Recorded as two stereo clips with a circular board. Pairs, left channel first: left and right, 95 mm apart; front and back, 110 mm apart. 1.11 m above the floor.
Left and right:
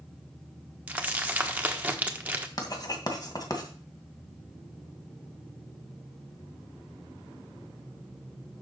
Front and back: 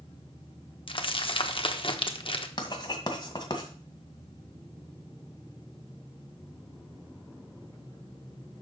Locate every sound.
0.9 s crumpling: 20° right, 1.3 m
2.6 s writing: 45° left, 2 m